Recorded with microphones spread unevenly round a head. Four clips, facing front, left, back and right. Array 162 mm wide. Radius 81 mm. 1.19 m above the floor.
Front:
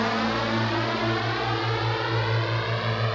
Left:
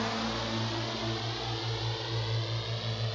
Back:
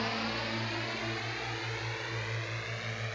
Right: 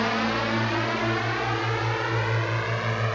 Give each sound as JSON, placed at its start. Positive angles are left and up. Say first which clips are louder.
{"t": 0.0, "sound": "a drone", "louder": "right 8 dB, front 10 dB", "azimuth_deg": -40}